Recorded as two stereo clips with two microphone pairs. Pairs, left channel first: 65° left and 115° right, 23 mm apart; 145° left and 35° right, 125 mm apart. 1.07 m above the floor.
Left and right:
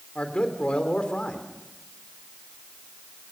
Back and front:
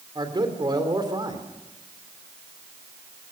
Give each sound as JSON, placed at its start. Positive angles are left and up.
{"t": 0.1, "sound": "a man speaking", "azimuth_deg": 20, "distance_m": 3.5}